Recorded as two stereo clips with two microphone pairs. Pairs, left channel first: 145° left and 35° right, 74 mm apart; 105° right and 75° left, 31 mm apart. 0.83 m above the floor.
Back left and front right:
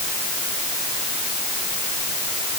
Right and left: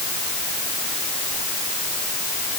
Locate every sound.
Only background noise.